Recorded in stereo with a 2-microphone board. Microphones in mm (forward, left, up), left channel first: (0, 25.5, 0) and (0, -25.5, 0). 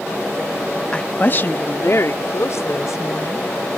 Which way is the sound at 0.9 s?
20° left (ahead or behind).